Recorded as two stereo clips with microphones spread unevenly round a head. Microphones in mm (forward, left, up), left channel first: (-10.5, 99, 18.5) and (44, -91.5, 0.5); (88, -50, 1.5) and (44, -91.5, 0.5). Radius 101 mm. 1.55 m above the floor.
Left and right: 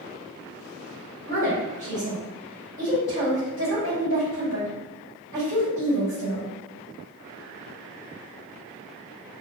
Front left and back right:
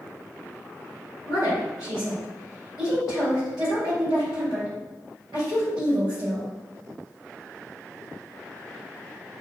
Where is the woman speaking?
Straight behind, 2.0 m.